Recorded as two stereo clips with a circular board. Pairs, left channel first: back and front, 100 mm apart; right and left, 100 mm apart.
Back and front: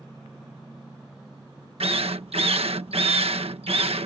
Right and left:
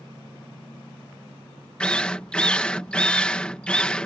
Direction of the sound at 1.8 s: 10° right.